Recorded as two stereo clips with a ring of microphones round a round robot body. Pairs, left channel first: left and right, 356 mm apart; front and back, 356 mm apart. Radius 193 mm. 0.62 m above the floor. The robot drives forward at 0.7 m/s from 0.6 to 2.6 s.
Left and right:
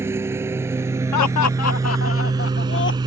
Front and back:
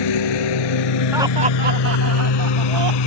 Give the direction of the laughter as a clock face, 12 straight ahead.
9 o'clock.